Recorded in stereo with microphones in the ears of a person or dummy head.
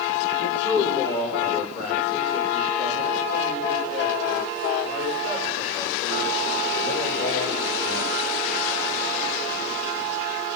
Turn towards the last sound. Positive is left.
turn(degrees=85)